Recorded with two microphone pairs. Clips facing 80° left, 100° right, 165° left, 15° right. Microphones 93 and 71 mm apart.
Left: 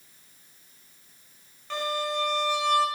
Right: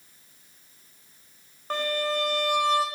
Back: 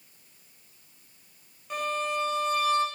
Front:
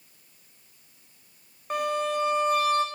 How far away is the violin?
About 3.5 m.